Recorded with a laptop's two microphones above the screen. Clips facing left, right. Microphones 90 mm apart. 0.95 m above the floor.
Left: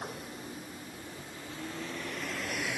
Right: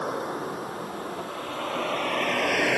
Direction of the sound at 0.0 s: 75° right (ahead or behind).